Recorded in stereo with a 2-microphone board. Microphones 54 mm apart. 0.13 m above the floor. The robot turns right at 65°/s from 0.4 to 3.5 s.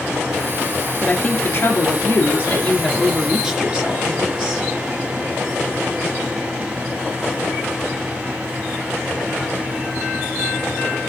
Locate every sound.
1.0 s a woman speaking: 40° left, 2.5 m; by 4.7 s 155° right, 2.5 m